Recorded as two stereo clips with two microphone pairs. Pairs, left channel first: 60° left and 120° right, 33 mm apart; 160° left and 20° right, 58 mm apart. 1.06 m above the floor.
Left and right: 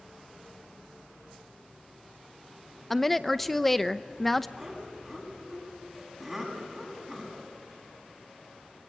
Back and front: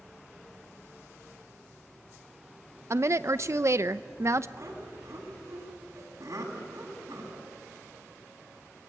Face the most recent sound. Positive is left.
turn(degrees=-30)